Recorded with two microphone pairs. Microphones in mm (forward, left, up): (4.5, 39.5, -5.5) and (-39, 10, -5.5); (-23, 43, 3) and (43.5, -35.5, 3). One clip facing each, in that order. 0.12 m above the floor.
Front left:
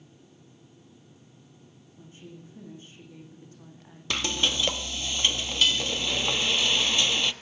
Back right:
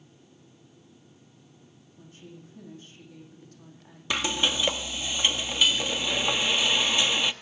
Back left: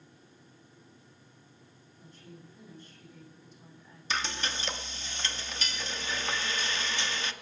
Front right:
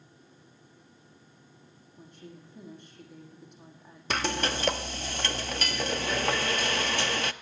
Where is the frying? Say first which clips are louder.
Back right 1 dB, front right 5 dB; 65° right, 0.5 m.